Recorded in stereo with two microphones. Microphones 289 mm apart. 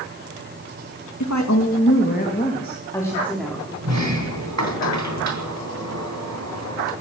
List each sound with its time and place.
1.2 s a woman speaking: 80° left, 1.9 m; by 3.7 s centre (ahead or behind), 4 m
3.8 s a sliding door: 70° right (ahead or behind), 3 m